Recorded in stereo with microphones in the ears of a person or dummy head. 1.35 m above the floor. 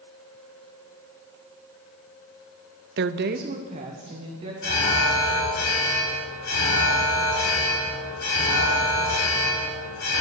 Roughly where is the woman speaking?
Right.